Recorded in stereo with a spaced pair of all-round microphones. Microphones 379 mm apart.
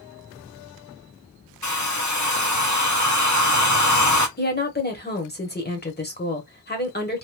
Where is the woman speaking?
25° left (ahead or behind), 1.1 m.